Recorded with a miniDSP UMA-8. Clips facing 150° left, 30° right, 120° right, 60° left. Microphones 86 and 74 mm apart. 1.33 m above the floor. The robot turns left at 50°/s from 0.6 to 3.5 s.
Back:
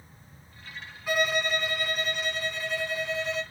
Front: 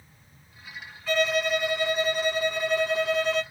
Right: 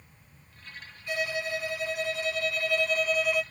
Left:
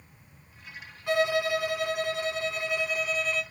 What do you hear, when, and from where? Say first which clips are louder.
1.1 s a violin: front 3 dB, left 6 dB; 75° left, 1.8 m; by 3.4 s 45° right, 1.8 m